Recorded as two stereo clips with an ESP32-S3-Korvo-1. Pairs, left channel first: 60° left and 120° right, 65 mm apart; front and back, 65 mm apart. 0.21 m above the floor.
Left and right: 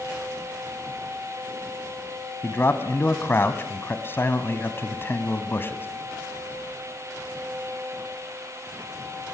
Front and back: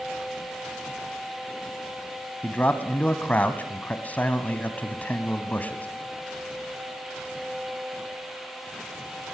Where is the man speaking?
45° left, 1.4 m.